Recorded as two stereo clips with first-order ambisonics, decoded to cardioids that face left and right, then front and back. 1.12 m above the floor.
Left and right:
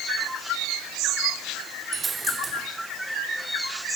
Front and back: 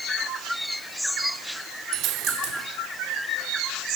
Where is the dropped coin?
160° right, 1.1 m.